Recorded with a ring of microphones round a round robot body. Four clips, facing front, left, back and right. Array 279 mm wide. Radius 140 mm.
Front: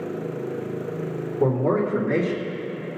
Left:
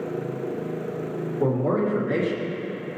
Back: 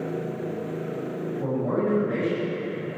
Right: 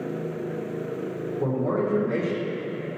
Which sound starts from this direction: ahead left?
A man speaking, at 1.4 s.